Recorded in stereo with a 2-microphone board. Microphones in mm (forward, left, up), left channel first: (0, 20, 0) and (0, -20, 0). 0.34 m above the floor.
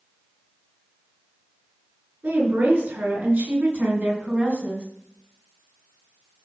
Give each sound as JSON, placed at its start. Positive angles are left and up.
{"t": 2.2, "sound": "a woman speaking", "side_deg": -70, "distance_m": 4.0}